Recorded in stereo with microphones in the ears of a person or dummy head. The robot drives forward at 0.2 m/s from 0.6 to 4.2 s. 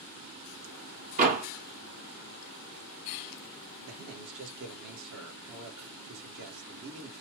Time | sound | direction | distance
1.2 | a door slam | 35° right (ahead or behind) | 1.3 m
3.8 | a man speaking | 75° right (ahead or behind) | 1.8 m